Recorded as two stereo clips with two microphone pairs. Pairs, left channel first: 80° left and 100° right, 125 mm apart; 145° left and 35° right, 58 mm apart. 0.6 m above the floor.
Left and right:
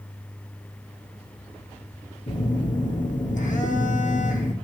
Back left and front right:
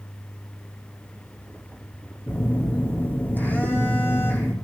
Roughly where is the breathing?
No breathing in this recording.